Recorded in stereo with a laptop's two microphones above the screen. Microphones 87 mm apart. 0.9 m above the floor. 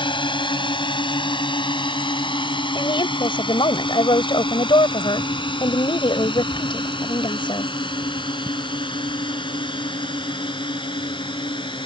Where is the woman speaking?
65° left (ahead or behind).